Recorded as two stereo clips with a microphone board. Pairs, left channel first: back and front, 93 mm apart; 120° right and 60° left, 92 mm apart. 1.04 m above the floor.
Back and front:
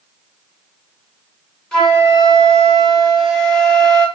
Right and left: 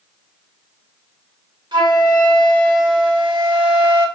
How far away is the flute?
About 1.5 m.